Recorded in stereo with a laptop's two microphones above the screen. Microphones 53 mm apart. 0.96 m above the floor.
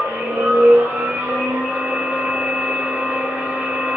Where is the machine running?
30° right (ahead or behind), 1.1 m.